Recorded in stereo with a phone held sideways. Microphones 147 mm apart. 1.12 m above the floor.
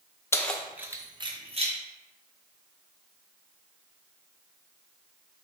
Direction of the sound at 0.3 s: 20° left (ahead or behind).